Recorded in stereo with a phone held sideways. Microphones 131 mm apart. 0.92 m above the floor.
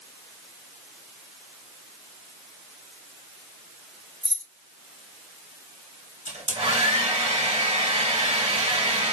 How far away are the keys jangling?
About 1.2 m.